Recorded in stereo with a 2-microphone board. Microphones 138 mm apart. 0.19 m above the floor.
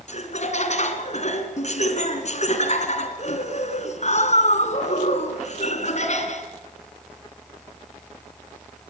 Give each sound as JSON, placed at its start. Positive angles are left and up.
{"t": 0.1, "sound": "laughter", "side_deg": 55, "distance_m": 3.0}